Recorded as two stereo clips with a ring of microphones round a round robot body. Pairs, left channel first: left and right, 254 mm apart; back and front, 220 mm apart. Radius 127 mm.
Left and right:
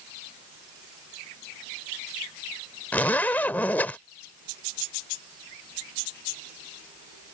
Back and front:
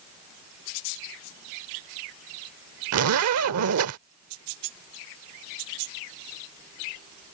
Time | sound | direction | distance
2.9 | a zipper | 5° left | ?